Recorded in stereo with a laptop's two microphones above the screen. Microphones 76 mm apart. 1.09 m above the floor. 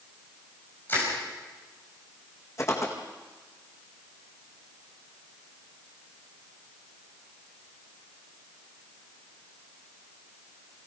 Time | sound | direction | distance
0.9 | crushing | 30° left (ahead or behind) | 6 m
2.6 | footsteps | 45° left (ahead or behind) | 4.5 m